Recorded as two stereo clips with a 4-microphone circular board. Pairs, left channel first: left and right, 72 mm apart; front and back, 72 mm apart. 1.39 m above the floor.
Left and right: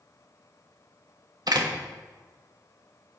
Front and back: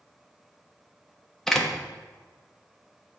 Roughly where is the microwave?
I don't hear a microwave.